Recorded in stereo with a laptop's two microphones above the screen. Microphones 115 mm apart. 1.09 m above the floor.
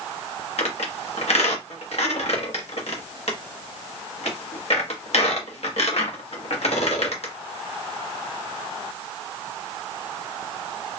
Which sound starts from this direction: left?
A squeak, at 0.6 s.